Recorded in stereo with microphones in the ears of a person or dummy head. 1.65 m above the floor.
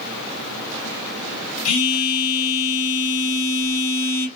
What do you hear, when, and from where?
1.6 s a phone buzzing: 85° left, 1.3 m